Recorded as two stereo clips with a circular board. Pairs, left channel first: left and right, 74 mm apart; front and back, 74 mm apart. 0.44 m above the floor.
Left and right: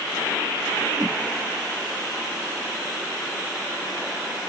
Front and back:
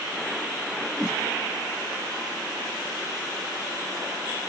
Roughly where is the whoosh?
Right.